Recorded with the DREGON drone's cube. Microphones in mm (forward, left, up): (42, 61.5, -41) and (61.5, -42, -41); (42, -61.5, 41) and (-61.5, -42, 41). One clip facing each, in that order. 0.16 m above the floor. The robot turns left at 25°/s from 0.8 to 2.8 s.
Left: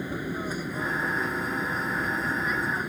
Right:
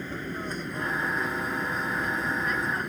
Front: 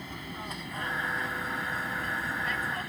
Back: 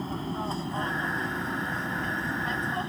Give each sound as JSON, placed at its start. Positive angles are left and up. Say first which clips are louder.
{"t": 0.0, "sound": "an aircraft", "louder": "left 3 dB, back 8 dB", "azimuth_deg": 170}